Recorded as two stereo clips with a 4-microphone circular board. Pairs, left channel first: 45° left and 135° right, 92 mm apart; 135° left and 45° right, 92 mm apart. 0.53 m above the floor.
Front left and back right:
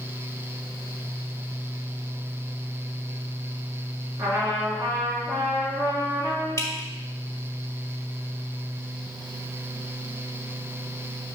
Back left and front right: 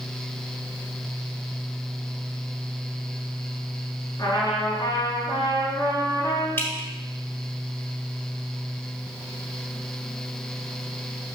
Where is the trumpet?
175° right, 3.5 m.